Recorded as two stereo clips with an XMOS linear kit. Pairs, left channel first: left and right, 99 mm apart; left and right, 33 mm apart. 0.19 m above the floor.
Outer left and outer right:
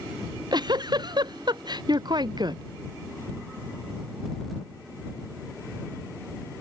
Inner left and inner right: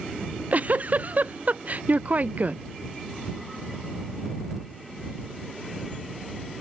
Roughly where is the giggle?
Right.